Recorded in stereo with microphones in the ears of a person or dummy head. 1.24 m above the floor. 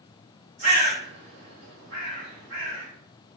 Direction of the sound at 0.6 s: 65° right (ahead or behind).